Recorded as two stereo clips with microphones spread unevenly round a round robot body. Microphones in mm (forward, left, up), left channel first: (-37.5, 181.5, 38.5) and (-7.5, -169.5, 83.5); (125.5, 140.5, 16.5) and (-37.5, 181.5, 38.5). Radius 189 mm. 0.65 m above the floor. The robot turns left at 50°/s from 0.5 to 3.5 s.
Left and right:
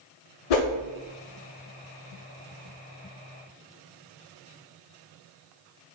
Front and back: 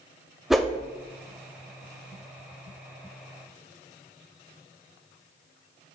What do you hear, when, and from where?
0.5 s a whoosh: 80° left, 0.8 m; by 0.7 s 70° left, 0.8 m